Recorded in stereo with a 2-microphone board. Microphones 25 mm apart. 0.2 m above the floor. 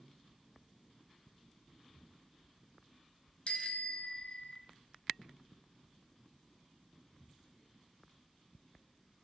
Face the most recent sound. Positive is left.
turn(degrees=65)  # may be behind; listen again after turning